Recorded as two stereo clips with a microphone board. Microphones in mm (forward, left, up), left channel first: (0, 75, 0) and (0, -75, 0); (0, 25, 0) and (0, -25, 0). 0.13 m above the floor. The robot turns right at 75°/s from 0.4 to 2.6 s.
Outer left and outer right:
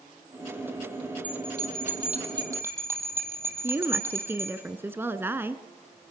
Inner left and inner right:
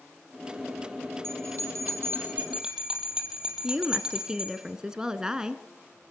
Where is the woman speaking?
15° right (ahead or behind), 1.3 m.